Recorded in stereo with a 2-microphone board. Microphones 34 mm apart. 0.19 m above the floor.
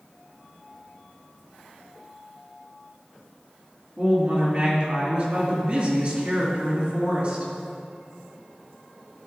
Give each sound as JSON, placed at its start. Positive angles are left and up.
{"t": 4.0, "sound": "a woman speaking", "side_deg": -40, "distance_m": 2.5}